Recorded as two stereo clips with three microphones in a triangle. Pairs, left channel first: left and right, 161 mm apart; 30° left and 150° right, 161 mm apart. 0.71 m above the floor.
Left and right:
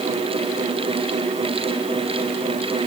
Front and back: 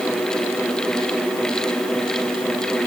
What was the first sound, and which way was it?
Only background noise.